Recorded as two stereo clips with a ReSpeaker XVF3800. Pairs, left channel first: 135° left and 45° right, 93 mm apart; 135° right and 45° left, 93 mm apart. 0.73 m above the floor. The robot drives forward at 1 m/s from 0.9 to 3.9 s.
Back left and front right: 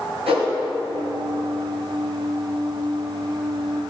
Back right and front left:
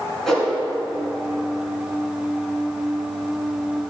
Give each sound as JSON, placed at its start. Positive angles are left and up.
{"t": 0.3, "sound": "a whoosh", "azimuth_deg": -50, "distance_m": 3.0}